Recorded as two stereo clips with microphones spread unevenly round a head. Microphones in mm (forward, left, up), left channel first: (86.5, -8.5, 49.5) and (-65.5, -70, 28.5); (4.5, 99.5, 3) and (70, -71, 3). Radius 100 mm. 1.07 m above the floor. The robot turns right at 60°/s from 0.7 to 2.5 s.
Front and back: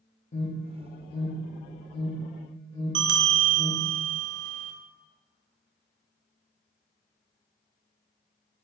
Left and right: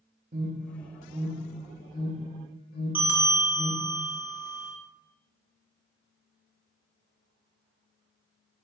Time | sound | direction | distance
0.3 | an alarm | 25° right | 2.5 m
3.0 | a bell | 150° right | 1.0 m